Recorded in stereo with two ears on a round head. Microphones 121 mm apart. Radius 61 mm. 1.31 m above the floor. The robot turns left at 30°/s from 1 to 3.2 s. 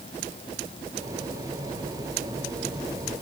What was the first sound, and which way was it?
Only background noise.